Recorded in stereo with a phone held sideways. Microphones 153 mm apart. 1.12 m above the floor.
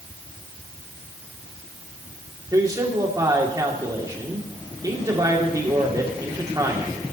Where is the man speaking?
25° right (ahead or behind), 3 m.